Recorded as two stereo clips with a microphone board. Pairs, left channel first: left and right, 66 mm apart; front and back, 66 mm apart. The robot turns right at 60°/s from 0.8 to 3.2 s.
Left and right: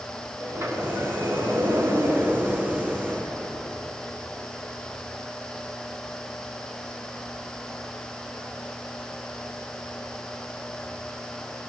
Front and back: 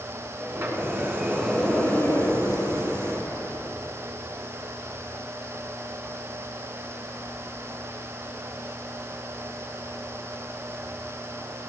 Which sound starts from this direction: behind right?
A sliding door, at 0.4 s.